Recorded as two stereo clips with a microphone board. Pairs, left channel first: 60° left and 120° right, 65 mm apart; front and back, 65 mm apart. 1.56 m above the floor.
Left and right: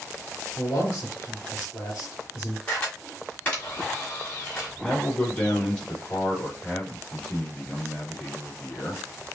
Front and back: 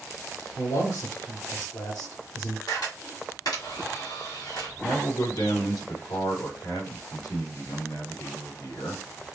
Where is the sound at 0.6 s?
5° left, 2.5 m.